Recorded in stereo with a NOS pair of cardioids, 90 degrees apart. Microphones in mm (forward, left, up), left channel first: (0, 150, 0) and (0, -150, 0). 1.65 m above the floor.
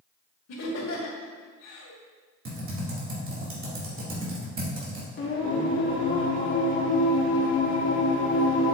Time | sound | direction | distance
0.5 | laughter | 55° left | 2.5 m
2.5 | typing on a keyboard | 40° right | 2.5 m
5.2 | singing | 40° left | 1.7 m